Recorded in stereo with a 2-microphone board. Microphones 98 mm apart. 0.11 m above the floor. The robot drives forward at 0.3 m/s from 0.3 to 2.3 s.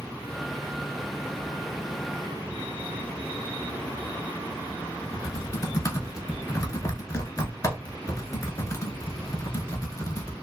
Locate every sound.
5.1 s typing on a keyboard: 35° left (ahead or behind), 0.6 m